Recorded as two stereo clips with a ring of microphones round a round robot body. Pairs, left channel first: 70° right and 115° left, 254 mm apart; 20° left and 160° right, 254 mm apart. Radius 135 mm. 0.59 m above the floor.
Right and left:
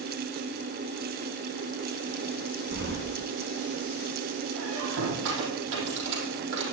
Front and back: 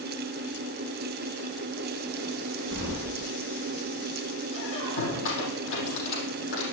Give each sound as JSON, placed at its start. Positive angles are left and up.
{"t": 2.7, "sound": "keys jangling", "azimuth_deg": 65, "distance_m": 4.5}
{"t": 4.5, "sound": "a squeak", "azimuth_deg": 65, "distance_m": 5.0}